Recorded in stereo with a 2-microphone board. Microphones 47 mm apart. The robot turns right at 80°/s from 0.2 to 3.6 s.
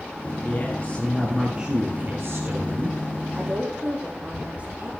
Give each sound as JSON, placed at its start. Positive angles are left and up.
{"t": 0.4, "sound": "a woman speaking", "azimuth_deg": 115, "distance_m": 2.0}
{"t": 3.3, "sound": "a woman speaking", "side_deg": -5, "distance_m": 7.0}